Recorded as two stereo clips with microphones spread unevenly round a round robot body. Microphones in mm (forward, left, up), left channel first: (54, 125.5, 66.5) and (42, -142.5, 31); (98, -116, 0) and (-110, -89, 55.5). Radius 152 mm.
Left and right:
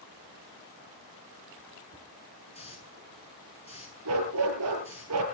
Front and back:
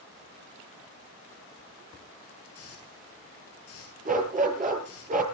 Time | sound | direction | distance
2.5 | a hiss | 20° left | 8.5 m
4.0 | a dog barking | 135° right | 7 m